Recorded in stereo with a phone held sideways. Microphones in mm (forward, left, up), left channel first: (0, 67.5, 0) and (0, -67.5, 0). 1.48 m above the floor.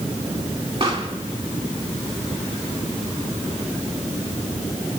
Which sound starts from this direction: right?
A pop, at 0.8 s.